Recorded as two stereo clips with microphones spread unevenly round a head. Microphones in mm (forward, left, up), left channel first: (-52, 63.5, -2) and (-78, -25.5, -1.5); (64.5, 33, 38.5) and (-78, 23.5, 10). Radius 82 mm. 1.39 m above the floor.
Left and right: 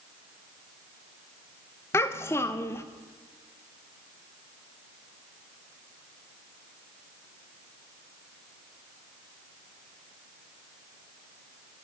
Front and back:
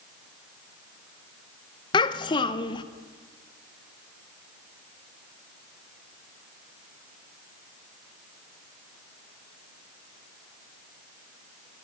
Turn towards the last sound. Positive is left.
turn(degrees=20)